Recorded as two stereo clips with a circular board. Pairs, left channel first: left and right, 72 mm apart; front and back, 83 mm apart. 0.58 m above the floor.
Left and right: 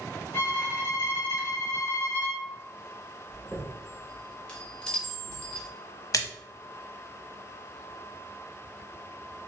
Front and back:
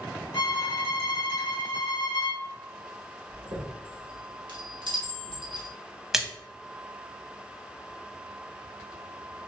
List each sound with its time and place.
0.3 s a violin: 30° left, 1.0 m
3.3 s a chime: 165° left, 1.3 m
6.1 s a splash: 95° left, 0.5 m